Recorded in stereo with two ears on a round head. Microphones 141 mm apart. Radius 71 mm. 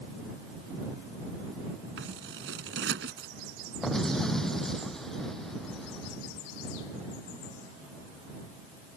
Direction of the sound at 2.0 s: 75° right (ahead or behind).